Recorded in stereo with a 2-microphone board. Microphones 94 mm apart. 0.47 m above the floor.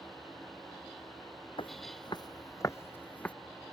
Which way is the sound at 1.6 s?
60° left (ahead or behind).